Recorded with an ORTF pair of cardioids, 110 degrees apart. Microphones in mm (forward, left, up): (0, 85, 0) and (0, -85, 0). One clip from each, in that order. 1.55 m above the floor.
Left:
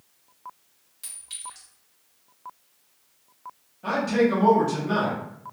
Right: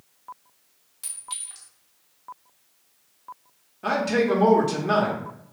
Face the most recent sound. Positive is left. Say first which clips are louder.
# even
turn(degrees=-35)